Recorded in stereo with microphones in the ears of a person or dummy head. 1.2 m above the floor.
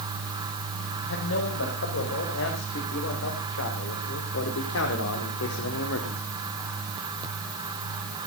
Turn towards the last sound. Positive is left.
turn(degrees=75)  # may be behind; listen again after turning